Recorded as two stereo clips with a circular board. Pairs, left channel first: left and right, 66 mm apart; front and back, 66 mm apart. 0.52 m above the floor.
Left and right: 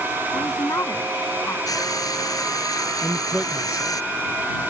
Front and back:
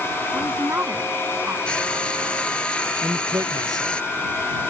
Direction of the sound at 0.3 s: 125° left.